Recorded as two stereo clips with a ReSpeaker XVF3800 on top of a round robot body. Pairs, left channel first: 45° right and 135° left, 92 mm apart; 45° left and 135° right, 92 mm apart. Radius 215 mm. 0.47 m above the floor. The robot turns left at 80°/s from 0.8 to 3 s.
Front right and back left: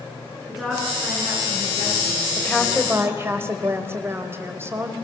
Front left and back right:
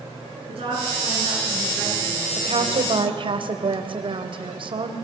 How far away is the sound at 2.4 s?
About 2.5 m.